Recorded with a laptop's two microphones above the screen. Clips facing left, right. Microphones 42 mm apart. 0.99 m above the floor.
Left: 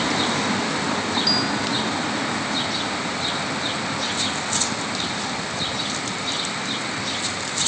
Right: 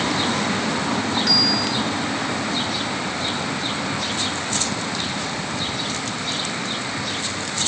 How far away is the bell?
About 3.5 m.